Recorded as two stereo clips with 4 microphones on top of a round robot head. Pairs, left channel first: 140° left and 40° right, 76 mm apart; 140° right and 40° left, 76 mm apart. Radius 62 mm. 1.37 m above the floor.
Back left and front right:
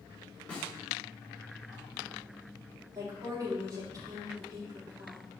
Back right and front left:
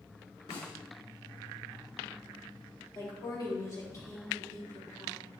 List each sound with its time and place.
0.5 s a snare drum: 145° right, 4 m
3.0 s a woman speaking: 90° right, 3.5 m